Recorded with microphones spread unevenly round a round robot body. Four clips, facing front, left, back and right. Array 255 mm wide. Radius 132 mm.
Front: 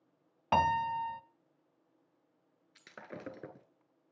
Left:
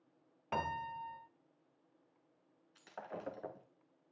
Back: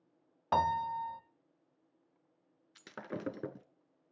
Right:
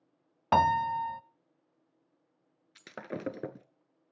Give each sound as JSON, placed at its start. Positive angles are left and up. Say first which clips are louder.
{"t": 0.5, "sound": "a piano", "louder": "right 14 dB, front 2 dB", "azimuth_deg": -70, "distance_m": 0.6}
{"t": 2.8, "sound": "breaking glass", "louder": "right 7 dB, back 5 dB", "azimuth_deg": -125, "distance_m": 0.8}